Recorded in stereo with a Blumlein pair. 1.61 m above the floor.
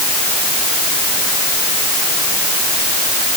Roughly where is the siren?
I don't hear a siren.